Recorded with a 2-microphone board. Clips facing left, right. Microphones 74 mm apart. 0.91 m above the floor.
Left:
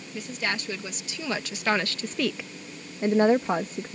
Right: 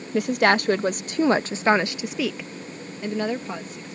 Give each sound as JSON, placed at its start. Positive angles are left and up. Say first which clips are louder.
{"t": 0.1, "sound": "a woman speaking", "louder": "right 12 dB", "side_deg": -65}